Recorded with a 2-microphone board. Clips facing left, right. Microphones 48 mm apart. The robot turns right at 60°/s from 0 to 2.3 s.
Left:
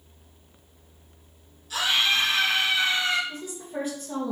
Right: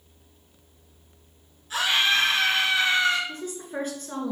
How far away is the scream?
About 2.5 m.